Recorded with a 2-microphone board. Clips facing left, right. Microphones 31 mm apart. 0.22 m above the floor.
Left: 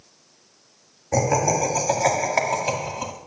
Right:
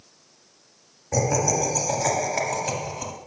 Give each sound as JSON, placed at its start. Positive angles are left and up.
{"t": 1.1, "sound": "laughter", "side_deg": 25, "distance_m": 1.6}